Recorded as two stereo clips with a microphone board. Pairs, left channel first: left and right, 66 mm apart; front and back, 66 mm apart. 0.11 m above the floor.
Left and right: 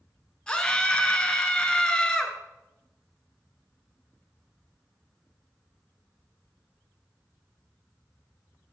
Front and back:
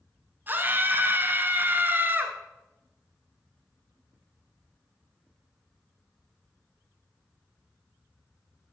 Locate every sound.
0.5 s a scream: 155° left, 1.4 m